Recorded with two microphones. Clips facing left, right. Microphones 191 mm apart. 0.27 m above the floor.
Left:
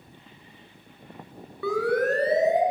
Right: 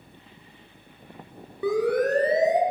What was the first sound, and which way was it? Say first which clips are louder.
A siren: right 1 dB; 20° right (ahead or behind).